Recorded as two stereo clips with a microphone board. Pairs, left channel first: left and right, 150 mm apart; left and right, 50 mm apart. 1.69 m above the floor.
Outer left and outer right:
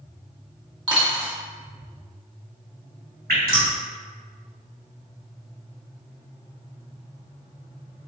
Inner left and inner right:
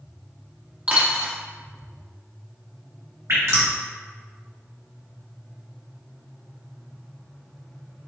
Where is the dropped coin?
30° right (ahead or behind), 1.2 m.